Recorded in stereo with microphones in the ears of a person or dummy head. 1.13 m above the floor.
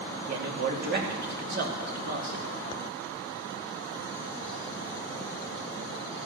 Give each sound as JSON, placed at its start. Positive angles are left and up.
{"t": 0.3, "sound": "a man speaking", "side_deg": -50, "distance_m": 2.5}